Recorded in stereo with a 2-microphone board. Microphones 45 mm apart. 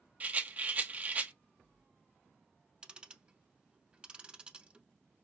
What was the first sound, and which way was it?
A rattle, 35° right (ahead or behind).